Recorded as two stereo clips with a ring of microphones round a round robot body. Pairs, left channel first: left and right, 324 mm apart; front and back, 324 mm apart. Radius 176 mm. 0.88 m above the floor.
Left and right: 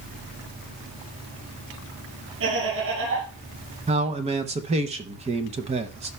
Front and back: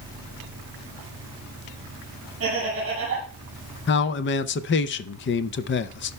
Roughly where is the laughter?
Behind right.